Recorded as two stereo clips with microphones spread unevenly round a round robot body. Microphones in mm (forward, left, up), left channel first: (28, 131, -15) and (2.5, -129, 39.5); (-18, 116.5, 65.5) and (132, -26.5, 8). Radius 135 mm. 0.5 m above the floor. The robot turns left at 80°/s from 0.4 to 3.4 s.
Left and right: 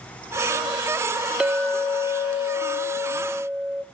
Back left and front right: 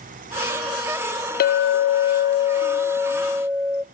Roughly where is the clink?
Behind left.